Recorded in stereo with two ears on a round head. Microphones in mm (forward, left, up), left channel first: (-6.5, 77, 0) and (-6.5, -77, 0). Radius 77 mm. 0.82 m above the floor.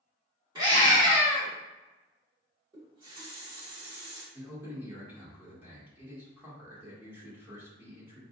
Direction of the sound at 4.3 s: 15° right (ahead or behind).